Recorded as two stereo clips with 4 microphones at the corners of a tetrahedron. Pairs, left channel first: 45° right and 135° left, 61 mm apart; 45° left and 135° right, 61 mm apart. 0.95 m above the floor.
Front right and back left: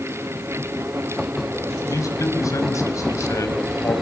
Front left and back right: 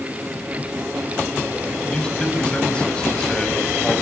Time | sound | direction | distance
1.9 | a man speaking | 30° right | 5.5 m